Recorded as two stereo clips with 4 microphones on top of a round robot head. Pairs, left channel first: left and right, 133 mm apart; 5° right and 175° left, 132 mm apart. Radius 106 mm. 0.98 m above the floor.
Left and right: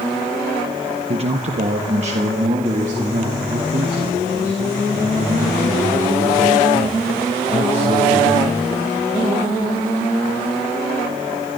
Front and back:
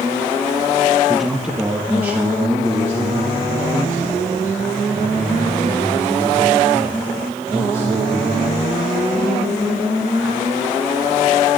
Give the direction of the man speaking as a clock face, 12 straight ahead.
3 o'clock.